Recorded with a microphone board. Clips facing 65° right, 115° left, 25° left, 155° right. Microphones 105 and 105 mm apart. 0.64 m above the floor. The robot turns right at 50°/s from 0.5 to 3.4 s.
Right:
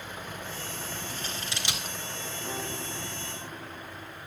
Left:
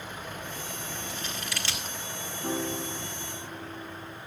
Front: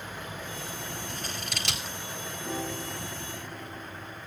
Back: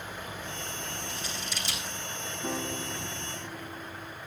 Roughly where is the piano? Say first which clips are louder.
Left 7 dB, even; behind.